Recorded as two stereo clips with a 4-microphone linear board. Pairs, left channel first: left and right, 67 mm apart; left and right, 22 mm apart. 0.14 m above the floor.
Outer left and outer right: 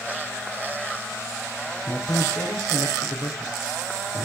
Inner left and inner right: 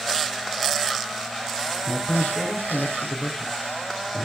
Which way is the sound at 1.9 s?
75° left (ahead or behind).